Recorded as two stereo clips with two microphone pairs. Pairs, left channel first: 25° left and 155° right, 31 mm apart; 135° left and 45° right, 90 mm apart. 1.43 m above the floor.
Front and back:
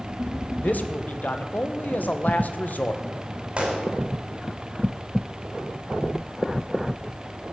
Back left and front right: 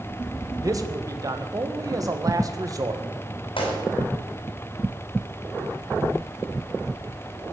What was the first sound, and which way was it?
A man speaking, 5° left.